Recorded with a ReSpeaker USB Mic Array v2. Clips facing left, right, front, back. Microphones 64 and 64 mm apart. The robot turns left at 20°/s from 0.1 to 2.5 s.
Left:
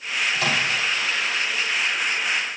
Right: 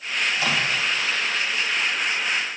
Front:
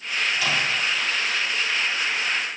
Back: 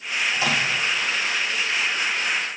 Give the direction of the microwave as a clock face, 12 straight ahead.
8 o'clock.